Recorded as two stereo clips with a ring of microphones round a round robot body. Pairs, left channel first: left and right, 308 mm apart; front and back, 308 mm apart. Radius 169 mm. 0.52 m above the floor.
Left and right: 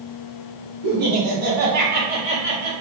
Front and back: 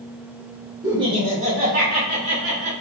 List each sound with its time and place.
0.8 s laughter: 105° right, 2 m; by 2.7 s 145° right, 2.5 m